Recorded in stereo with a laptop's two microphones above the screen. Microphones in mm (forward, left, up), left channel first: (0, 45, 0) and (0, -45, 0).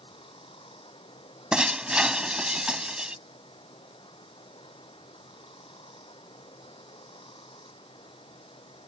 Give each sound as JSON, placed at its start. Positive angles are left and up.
{"t": 0.0, "sound": "running water", "side_deg": 80}
{"t": 1.5, "sound": "breaking glass", "side_deg": -10}